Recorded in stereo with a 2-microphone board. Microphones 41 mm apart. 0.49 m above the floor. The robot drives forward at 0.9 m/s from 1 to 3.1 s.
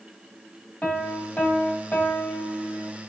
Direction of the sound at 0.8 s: 40° left (ahead or behind).